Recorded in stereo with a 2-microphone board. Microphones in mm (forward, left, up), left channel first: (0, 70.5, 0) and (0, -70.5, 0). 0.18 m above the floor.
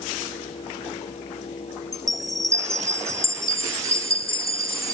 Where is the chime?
25° right (ahead or behind), 0.6 m.